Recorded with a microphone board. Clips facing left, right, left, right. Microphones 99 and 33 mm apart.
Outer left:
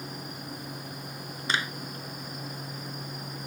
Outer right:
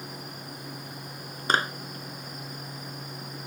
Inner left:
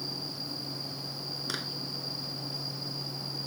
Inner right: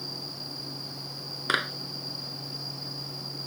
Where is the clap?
45° right (ahead or behind).